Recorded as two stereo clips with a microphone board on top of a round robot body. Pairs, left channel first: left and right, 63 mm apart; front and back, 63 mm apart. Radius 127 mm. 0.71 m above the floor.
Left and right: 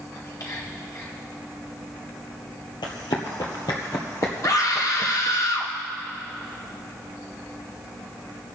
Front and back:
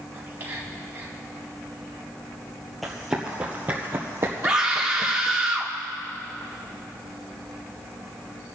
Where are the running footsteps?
90° left, 1.3 m; by 5.4 s 145° left, 2 m.